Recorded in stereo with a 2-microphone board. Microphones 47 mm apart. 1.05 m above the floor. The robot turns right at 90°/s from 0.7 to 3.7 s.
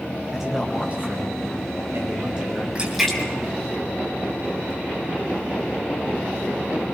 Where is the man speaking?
170° right, 6 m; by 2.6 s 5° left, 6 m.